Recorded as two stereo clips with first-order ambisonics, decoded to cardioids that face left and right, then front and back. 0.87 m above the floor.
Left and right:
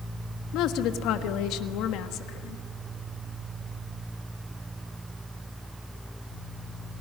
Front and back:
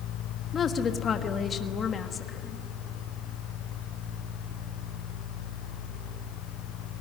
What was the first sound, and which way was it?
A woman speaking, 65° left.